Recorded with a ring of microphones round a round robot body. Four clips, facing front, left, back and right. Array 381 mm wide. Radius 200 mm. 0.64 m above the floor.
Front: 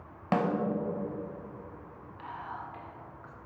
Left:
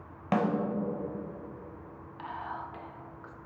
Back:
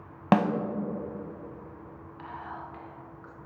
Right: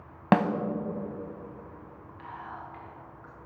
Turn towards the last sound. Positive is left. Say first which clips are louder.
# left 3 dB, even
turn(degrees=90)